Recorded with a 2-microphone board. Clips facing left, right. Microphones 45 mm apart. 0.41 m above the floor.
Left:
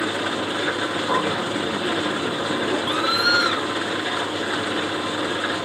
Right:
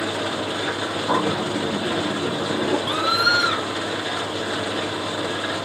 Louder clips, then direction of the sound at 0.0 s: Left 1 dB; 25° left (ahead or behind).